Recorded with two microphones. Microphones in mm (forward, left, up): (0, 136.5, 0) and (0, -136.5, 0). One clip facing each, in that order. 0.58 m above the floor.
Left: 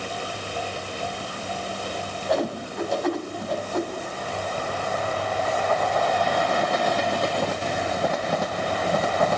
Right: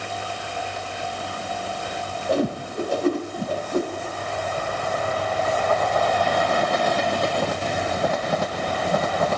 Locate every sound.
2.3 s a whoosh: 35° right (ahead or behind), 1.4 m